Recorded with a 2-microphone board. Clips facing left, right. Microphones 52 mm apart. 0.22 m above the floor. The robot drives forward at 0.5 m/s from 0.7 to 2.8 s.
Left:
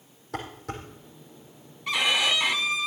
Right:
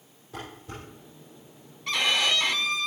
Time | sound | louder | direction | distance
0.3 | dishes clattering | left 5 dB | 75° left (ahead or behind) | 5 m
1.9 | a violin | left 1 dB | 5° left (ahead or behind) | 0.7 m